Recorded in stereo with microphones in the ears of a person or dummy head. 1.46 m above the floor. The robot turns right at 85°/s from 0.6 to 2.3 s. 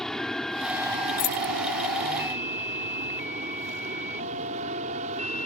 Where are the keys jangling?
50° left (ahead or behind); by 1.5 s 45° left (ahead or behind).